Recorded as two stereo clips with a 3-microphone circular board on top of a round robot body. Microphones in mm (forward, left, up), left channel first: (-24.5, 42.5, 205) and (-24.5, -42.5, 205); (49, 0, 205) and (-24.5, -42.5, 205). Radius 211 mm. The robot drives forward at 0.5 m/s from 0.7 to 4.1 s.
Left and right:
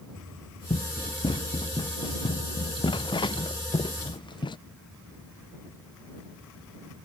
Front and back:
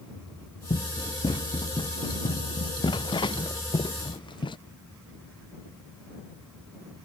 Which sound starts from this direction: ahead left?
Running footsteps, at 0.7 s.